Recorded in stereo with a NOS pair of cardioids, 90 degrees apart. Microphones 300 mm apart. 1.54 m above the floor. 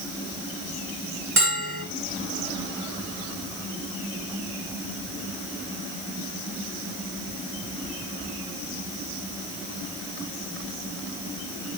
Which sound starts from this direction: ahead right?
A bell, at 1.4 s.